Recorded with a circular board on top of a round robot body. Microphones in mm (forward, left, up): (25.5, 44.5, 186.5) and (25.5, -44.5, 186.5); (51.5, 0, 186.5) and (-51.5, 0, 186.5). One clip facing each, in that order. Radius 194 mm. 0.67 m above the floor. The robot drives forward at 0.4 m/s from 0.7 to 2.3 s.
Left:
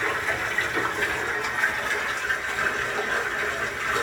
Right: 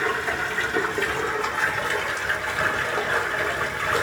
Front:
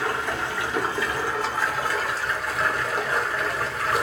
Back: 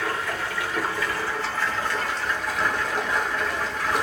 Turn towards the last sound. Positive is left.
turn(degrees=-90)